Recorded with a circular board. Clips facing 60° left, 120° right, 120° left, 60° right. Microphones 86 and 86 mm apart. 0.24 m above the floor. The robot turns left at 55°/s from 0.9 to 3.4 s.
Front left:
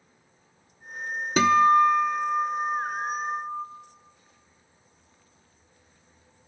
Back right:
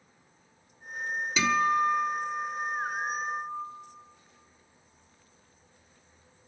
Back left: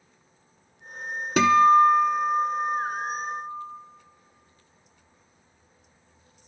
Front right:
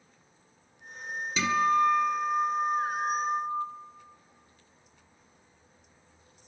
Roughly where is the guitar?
Left.